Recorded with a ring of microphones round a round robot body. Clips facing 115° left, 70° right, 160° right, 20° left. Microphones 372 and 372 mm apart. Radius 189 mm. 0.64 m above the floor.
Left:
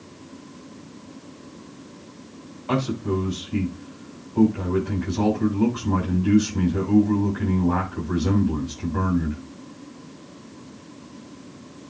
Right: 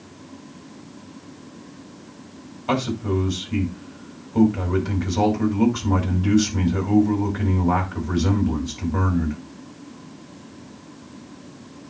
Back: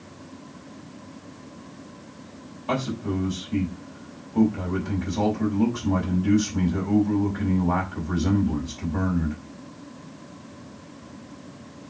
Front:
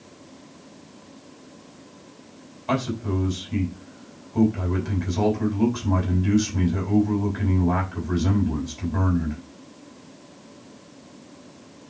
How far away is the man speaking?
About 5 m.